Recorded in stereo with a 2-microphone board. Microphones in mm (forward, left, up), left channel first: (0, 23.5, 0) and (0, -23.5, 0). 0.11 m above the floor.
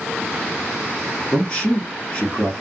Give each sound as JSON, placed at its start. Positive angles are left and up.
{"t": 1.3, "sound": "a man speaking", "side_deg": 20, "distance_m": 1.2}